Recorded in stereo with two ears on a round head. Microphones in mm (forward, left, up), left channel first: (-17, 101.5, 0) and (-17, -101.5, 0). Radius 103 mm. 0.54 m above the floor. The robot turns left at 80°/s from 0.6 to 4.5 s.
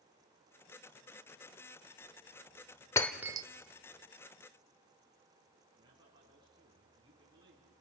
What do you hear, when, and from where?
3.0 s breaking glass: 15° left (ahead or behind), 0.7 m; by 3.5 s 25° right (ahead or behind), 0.7 m
5.7 s a man speaking: 20° right (ahead or behind), 5 m